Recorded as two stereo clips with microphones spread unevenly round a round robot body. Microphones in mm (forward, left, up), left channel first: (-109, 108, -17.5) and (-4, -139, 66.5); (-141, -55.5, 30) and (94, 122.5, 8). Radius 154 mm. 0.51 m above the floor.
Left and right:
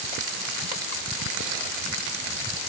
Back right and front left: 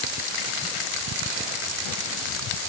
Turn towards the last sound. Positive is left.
No sound to turn to.